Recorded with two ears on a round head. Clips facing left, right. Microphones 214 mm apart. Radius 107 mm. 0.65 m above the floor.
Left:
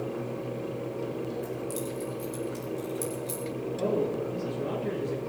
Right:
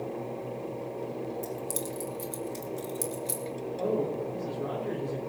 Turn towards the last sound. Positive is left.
turn(degrees=45)  # may be behind; listen again after turning